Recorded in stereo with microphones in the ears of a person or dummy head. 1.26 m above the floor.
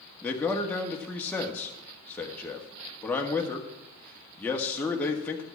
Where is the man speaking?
10° left (ahead or behind), 1.7 m.